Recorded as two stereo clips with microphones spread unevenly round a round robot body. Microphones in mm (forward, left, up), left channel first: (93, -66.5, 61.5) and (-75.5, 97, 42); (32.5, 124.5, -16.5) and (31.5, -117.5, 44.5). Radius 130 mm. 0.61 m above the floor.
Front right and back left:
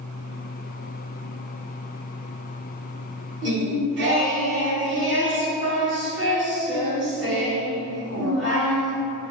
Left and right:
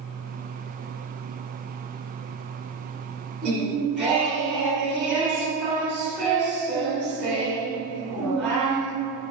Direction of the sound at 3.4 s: 175° right.